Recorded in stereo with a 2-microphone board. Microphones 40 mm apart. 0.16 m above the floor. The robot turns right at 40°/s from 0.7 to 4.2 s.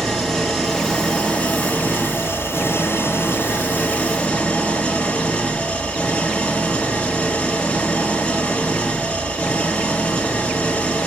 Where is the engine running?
15° left, 1.6 m; by 11.1 s 155° left, 1.6 m.